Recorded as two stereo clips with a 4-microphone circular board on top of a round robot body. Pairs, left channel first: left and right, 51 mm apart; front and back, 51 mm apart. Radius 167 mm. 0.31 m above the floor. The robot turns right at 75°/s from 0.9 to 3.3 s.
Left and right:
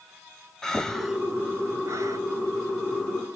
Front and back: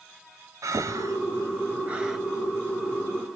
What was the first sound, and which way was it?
Breathing, 170° left.